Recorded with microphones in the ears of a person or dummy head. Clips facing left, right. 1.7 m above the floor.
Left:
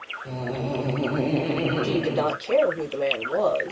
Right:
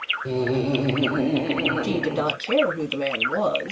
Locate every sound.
0.2 s laughter: 50° right (ahead or behind), 0.8 m; by 2.4 s 15° left (ahead or behind), 1.2 m
1.8 s a woman speaking: 45° right (ahead or behind), 2 m